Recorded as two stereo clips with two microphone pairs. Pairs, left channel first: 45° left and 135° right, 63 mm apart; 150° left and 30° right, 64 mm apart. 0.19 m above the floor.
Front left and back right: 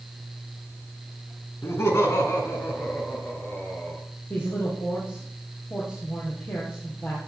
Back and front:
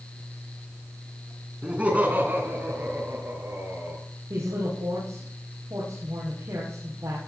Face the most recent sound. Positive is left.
turn(degrees=-5)